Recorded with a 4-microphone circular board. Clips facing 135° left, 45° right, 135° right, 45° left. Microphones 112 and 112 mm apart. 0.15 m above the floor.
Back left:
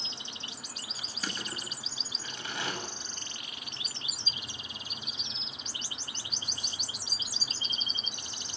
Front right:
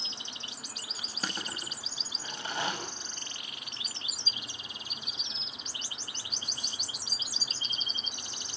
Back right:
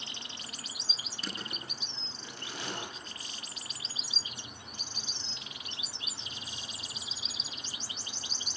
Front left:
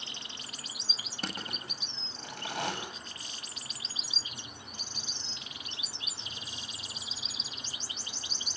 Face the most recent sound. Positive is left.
turn(degrees=5)